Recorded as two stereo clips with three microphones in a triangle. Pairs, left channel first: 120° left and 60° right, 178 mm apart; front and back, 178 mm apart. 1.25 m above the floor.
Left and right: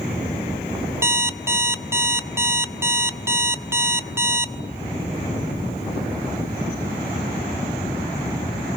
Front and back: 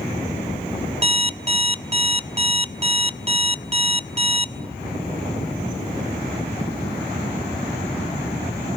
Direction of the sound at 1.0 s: 130° right.